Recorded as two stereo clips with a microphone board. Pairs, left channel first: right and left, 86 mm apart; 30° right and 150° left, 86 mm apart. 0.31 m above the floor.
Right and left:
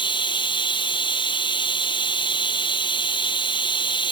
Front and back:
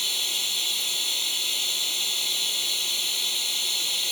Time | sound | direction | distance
0.0 | running water | 120° right | ?